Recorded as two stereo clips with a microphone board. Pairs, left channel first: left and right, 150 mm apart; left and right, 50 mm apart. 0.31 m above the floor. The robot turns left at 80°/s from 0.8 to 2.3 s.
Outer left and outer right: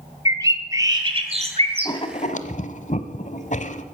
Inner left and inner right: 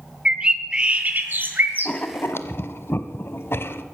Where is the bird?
35° right, 1.9 m; by 1.9 s 125° right, 1.9 m.